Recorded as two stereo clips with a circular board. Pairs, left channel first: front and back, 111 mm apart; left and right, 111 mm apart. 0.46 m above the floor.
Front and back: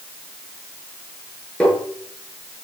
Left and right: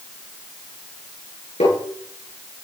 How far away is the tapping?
About 9 m.